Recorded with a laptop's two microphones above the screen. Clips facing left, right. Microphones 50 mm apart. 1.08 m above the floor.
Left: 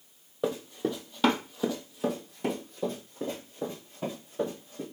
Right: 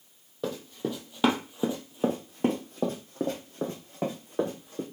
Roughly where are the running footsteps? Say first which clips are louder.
Left 2 dB; centre.